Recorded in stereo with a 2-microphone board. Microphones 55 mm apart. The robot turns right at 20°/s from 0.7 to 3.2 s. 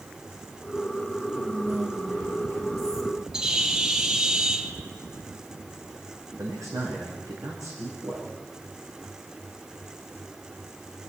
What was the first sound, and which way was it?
Whispering, 135° right.